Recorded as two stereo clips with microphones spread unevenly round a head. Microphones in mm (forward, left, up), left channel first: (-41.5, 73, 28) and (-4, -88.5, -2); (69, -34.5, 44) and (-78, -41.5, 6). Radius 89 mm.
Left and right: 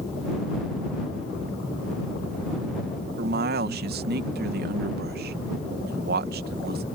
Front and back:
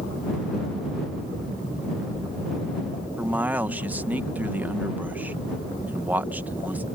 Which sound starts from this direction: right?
A man speaking, at 3.2 s.